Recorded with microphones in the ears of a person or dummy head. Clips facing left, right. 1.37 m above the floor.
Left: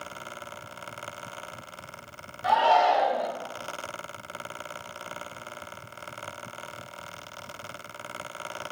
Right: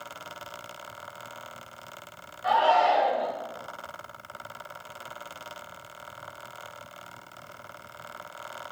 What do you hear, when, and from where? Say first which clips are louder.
2.4 s a shout: left 1 dB; 45° left (ahead or behind), 1.2 m